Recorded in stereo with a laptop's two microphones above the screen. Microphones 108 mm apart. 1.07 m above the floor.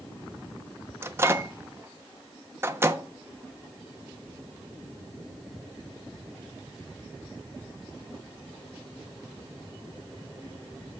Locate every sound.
1.0 s a microwave: 25° right (ahead or behind), 0.8 m